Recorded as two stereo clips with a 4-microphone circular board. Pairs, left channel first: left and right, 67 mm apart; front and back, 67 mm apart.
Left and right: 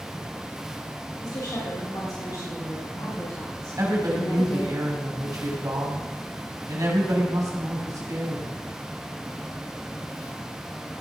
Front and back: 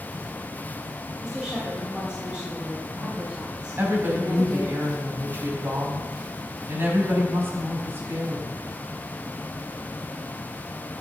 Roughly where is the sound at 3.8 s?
Behind right.